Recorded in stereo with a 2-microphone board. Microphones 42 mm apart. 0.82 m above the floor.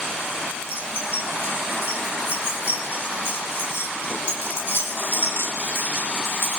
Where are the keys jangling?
65° left (ahead or behind), 8.5 m; by 6.6 s 85° left, 4.5 m.